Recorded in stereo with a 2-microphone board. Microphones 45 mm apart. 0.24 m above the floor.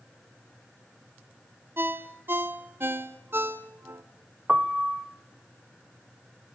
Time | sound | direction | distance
1.8 | a ringtone | 55° right (ahead or behind) | 1.2 m
4.5 | a piano | 20° right (ahead or behind) | 0.6 m